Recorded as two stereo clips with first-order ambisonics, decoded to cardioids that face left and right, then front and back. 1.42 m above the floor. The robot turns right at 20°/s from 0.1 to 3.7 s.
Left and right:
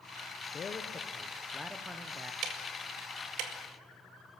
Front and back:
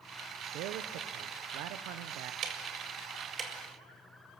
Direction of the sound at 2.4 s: 130° right.